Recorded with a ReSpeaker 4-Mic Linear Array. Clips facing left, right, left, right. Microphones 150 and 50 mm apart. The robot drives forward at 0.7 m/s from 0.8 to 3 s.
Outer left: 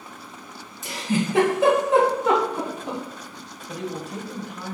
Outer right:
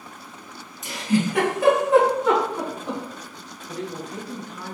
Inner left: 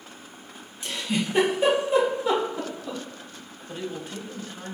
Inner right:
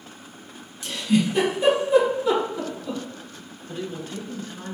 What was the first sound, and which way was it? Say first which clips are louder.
A giggle: outer right 2 dB, inner right 6 dB; 30° left (ahead or behind).